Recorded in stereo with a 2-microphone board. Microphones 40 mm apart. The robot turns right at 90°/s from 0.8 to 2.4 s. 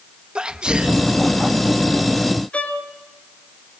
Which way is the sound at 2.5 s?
30° left (ahead or behind).